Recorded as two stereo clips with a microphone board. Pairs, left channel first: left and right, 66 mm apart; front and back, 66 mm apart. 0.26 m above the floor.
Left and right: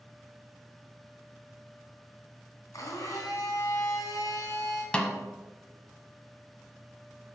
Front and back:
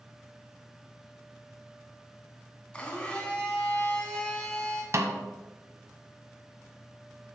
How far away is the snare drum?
About 1.0 m.